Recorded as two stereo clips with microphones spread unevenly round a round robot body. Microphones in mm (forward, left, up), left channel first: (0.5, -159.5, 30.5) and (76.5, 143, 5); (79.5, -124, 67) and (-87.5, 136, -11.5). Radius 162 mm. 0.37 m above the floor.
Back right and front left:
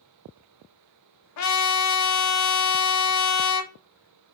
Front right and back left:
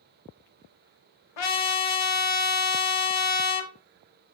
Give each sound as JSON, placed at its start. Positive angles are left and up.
{"t": 1.4, "sound": "a trumpet", "azimuth_deg": -60, "distance_m": 0.7}